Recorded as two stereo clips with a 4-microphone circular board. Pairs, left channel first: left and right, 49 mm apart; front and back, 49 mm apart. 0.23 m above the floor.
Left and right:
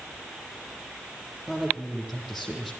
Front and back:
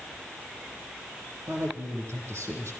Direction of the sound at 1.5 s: 175° right.